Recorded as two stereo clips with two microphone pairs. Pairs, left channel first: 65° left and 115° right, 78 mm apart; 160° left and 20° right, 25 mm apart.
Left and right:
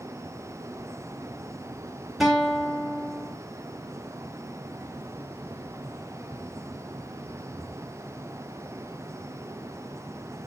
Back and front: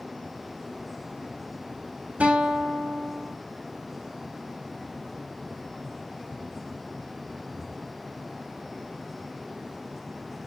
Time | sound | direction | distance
2.2 | a guitar | 25° right | 3.5 m